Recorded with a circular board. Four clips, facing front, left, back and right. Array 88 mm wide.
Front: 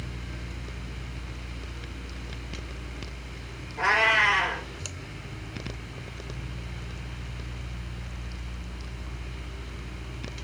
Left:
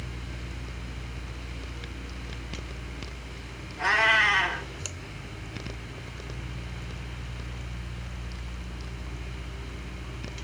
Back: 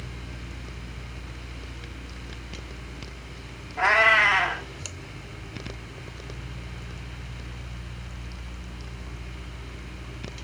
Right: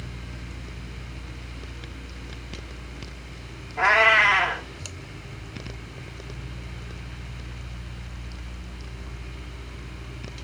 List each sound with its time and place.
3.8 s a cat meowing: 125° right, 5.5 m